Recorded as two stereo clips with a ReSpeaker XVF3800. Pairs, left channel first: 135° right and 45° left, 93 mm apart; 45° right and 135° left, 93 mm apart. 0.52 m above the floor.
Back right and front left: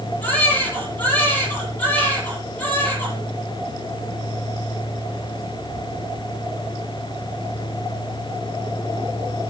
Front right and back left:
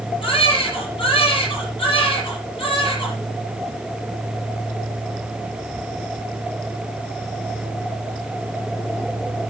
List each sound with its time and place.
0.2 s a baby crying: 65° right, 8.5 m